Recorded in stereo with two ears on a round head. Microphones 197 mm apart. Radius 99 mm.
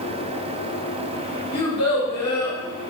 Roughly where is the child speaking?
Left.